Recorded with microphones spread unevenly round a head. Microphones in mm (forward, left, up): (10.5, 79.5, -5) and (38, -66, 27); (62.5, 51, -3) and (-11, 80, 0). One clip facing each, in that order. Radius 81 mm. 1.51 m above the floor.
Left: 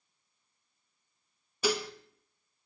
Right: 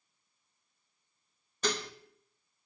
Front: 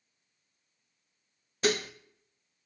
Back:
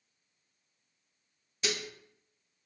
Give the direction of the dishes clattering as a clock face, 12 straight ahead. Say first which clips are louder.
Left 4 dB, front 8 dB; 12 o'clock.